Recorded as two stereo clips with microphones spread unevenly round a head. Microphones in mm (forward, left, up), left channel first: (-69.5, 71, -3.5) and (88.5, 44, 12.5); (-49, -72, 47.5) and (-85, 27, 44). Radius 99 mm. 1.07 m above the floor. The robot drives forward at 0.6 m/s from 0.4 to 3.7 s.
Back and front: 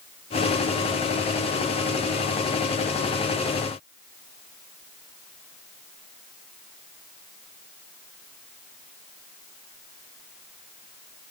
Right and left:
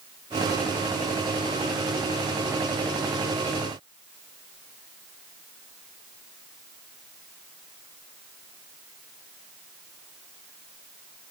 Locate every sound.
Only background noise.